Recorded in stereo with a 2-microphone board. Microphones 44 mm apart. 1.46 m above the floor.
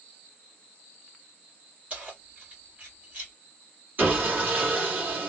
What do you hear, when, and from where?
1.9 s keys jangling: 30° right (ahead or behind), 1.9 m
4.0 s sawing: 35° right (ahead or behind), 1.7 m